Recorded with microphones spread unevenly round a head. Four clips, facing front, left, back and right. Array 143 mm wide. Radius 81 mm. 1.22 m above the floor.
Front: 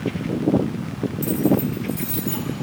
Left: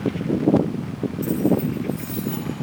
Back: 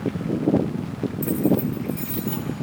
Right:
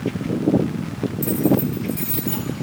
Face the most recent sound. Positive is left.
turn(degrees=-120)